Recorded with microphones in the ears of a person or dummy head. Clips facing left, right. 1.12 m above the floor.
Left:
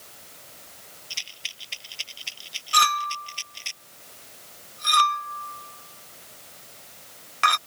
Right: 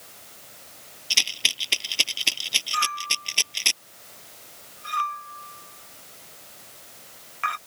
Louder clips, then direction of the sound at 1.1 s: Right 11 dB; 75° right (ahead or behind).